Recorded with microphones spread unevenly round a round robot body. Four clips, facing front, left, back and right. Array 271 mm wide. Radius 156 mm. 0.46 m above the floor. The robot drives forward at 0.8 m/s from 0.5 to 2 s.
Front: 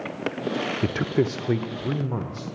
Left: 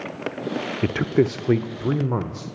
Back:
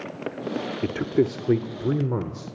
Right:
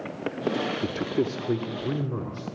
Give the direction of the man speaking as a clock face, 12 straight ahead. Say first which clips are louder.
Left 11 dB, back 2 dB; 8 o'clock.